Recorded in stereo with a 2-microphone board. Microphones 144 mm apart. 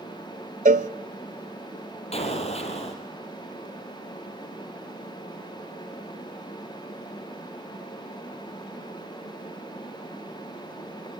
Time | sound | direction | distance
0.7 | a cowbell | 65° right (ahead or behind) | 0.7 m
2.1 | an explosion | 45° left (ahead or behind) | 2.5 m